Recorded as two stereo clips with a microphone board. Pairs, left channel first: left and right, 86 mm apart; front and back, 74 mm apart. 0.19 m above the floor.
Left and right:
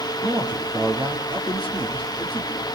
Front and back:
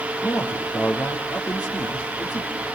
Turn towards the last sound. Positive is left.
turn(degrees=-65)